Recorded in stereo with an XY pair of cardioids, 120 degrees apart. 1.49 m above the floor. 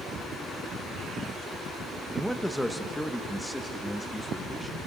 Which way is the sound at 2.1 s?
Straight ahead.